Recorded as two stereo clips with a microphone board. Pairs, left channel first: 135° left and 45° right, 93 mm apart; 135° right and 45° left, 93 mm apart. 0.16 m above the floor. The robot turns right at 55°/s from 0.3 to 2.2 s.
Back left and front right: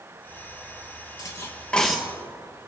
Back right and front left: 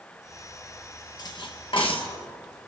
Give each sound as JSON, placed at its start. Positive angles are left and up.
{"t": 1.2, "sound": "cutlery clinking", "azimuth_deg": -175, "distance_m": 2.0}